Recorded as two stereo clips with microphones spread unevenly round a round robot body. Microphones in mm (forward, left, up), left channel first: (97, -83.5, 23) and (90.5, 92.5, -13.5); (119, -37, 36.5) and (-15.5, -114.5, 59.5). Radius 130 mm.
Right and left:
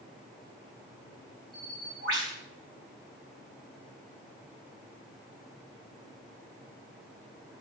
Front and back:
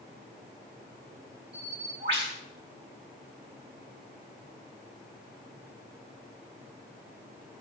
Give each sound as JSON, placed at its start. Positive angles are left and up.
{"t": 1.5, "sound": "a bird", "azimuth_deg": 140, "distance_m": 6.5}